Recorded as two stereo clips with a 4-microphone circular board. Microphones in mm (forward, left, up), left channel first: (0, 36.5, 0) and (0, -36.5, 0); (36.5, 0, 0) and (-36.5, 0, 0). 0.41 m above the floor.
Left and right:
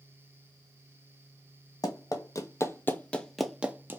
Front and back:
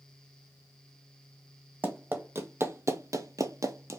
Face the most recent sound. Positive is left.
turn(degrees=-145)